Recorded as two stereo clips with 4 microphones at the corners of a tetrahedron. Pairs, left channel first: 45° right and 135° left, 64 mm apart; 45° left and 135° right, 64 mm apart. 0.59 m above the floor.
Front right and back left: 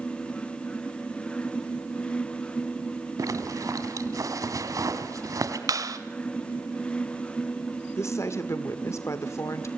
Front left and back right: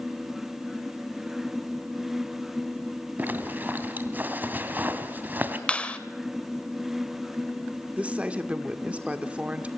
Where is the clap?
115° left, 2 m.